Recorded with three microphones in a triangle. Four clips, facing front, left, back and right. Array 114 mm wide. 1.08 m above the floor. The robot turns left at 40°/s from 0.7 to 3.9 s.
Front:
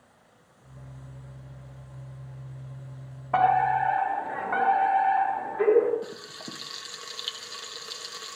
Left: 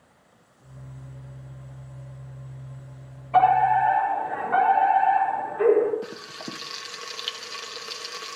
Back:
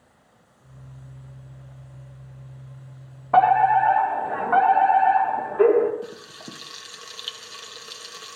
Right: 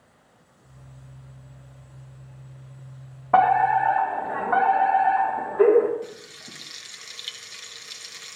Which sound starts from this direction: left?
Frying, at 6.0 s.